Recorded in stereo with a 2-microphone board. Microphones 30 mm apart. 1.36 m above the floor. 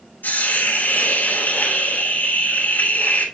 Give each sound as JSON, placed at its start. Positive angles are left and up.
{"t": 0.2, "sound": "a hiss", "side_deg": 75, "distance_m": 5.0}